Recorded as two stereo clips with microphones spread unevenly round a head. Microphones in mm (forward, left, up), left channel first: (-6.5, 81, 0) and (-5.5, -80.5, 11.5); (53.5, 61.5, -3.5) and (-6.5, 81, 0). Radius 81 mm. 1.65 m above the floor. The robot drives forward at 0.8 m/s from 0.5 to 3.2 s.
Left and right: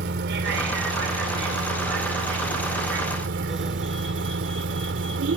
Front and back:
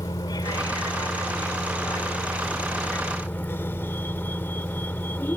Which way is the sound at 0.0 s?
70° right.